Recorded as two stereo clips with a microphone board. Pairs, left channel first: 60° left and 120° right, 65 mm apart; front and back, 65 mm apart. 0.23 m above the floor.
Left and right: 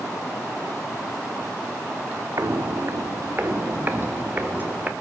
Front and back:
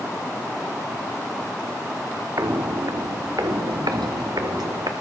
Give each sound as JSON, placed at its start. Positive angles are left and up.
{"t": 2.4, "sound": "footsteps", "azimuth_deg": -150, "distance_m": 1.0}